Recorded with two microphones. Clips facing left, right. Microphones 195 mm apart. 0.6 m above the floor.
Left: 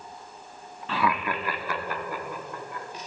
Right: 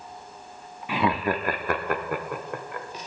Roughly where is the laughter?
Centre.